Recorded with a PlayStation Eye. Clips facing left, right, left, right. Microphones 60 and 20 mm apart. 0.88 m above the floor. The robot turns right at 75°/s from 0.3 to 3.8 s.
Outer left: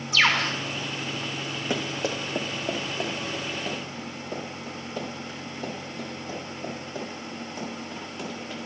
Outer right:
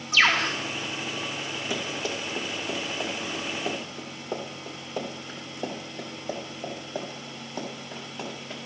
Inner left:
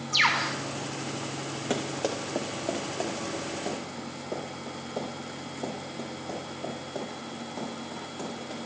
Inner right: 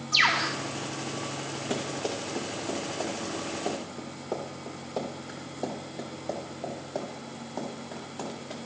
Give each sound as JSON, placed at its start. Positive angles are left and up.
{"t": 0.1, "sound": "a bird", "side_deg": -55, "distance_m": 2.5}
{"t": 1.7, "sound": "running footsteps", "side_deg": 40, "distance_m": 2.0}